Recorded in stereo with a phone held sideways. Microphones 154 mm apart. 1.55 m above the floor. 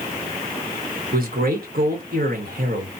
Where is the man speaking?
70° right (ahead or behind), 1.6 m.